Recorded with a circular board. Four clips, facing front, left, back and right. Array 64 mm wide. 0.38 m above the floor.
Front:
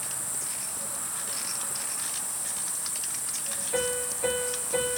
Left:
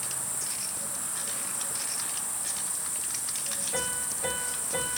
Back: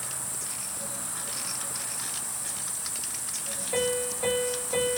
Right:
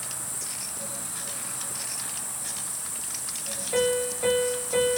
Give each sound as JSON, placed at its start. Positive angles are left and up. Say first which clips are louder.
{"t": 0.0, "sound": "an insect", "louder": "even, even", "azimuth_deg": -115, "distance_m": 2.0}
{"t": 3.7, "sound": "a piano", "louder": "right 12 dB, back 2 dB", "azimuth_deg": -115, "distance_m": 2.0}